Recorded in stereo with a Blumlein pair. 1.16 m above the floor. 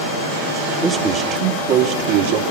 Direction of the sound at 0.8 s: 15° right.